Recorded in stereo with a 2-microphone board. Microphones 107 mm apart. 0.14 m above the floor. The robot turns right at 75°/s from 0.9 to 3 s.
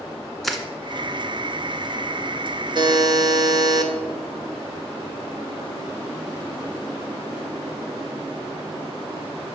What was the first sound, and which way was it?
Crushing, centre (ahead or behind).